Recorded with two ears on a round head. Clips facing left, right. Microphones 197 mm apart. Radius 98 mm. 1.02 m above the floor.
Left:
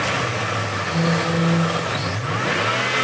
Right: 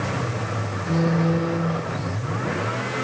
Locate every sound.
0.9 s a phone buzzing: 75° right (ahead or behind), 2.5 m